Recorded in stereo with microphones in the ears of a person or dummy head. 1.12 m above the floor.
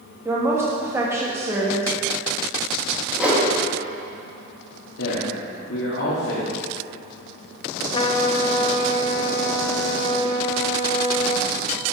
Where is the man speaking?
80° left, 2 m.